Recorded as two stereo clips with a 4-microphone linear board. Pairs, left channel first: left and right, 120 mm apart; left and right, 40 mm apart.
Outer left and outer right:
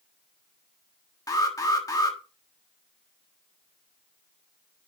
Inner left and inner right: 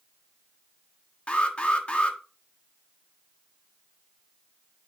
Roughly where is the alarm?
Left.